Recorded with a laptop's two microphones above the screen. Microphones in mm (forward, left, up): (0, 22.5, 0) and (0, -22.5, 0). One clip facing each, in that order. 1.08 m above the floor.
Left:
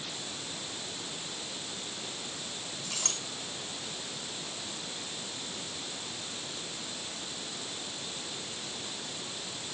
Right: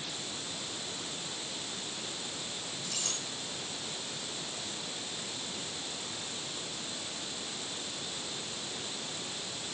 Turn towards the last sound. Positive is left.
turn(degrees=70)  # may be behind; listen again after turning